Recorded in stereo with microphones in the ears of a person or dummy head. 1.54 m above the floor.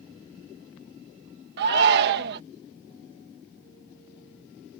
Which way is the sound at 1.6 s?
55° right (ahead or behind).